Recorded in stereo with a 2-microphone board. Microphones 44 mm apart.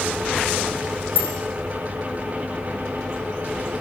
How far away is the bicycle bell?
About 7 m.